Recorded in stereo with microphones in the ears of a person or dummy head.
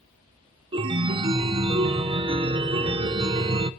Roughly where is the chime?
Right.